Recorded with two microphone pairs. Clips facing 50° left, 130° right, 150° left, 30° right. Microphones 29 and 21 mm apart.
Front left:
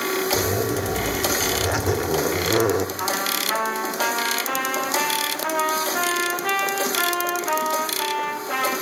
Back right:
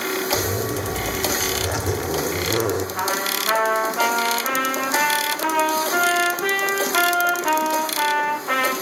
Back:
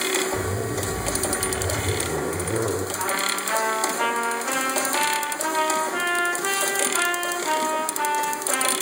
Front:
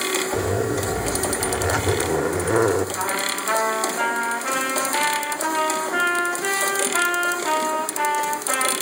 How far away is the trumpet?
About 7.5 m.